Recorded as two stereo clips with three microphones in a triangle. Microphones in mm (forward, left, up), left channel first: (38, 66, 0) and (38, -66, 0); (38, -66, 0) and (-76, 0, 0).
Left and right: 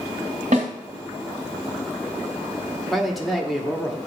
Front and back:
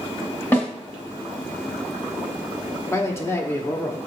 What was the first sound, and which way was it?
A snare drum, 105° right.